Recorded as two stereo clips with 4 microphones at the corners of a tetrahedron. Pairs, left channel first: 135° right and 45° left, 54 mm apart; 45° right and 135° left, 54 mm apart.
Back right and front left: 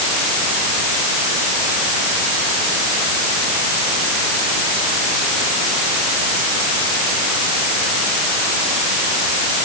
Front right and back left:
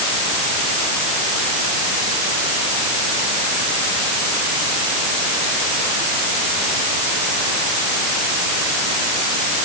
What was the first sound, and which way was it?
Only background noise.